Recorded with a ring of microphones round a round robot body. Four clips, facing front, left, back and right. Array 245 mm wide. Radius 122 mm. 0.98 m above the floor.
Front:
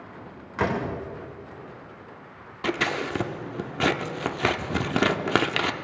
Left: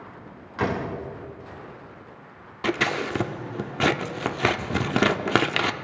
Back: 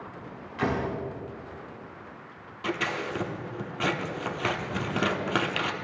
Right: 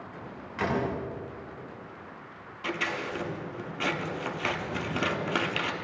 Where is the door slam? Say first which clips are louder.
Left 2 dB, front 2 dB; 25° left, 3 m.